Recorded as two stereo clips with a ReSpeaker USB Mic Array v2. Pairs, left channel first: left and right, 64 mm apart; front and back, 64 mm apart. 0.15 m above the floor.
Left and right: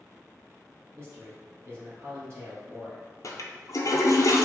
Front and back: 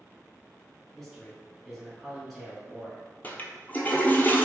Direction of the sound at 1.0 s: 90° right.